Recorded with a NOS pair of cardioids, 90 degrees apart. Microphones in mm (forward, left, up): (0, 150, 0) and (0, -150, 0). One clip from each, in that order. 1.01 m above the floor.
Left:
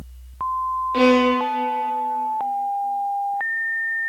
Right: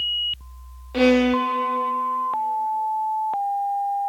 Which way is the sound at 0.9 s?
5° left.